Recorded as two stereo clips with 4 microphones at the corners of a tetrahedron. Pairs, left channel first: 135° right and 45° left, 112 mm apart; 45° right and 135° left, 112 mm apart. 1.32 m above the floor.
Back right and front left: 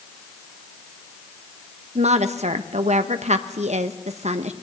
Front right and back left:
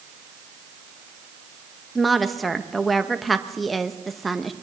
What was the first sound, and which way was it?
A woman speaking, 45° left.